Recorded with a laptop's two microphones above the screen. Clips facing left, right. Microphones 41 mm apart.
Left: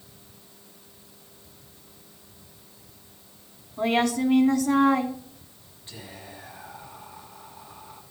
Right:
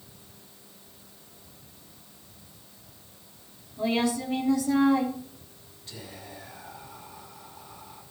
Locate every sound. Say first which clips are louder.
3.8 s a woman speaking: left 3 dB; 55° left (ahead or behind), 2.5 m
5.9 s whispering: left 1 dB; 25° left (ahead or behind), 6.5 m